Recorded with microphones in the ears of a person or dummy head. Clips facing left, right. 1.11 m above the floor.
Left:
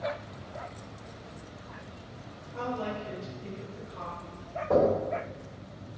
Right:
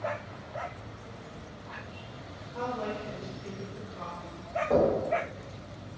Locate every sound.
2.5 s a woman speaking: 5° left (ahead or behind), 0.9 m; by 4.5 s centre (ahead or behind), 0.6 m
4.7 s knocking: 20° left (ahead or behind), 1.5 m